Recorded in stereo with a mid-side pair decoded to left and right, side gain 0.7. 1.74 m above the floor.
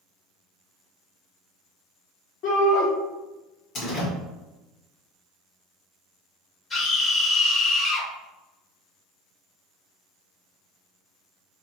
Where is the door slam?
55° left, 1.6 m.